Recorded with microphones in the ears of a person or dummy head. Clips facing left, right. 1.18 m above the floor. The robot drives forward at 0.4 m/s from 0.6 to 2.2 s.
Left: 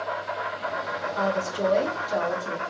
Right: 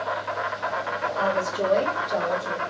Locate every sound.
0.0 s an insect: 60° right (ahead or behind), 0.8 m; by 2.7 s 55° right (ahead or behind), 0.9 m
1.2 s a woman speaking: 10° left (ahead or behind), 1.5 m; by 2.6 s 5° left (ahead or behind), 1.9 m